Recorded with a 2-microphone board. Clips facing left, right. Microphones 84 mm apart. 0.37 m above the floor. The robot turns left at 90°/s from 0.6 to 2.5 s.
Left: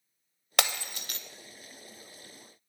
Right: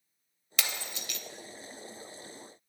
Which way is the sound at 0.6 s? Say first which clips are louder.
Left 6 dB; 65° left (ahead or behind).